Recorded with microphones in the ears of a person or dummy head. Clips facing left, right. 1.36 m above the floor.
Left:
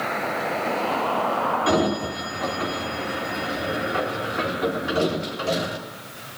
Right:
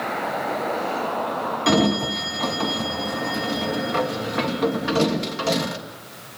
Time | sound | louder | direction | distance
1.7 | a sliding door | right 4 dB | 70° right (ahead or behind) | 2.5 m